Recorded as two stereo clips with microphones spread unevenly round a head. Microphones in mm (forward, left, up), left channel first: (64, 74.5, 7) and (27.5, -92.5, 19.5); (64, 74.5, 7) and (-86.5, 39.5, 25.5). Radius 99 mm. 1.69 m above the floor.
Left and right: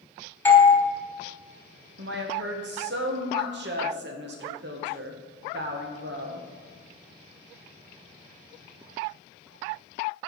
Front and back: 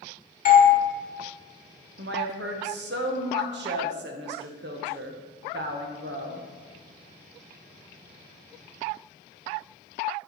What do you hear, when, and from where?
0.5 s a doorbell: 5° left, 1.2 m
2.0 s a woman speaking: 140° right, 0.8 m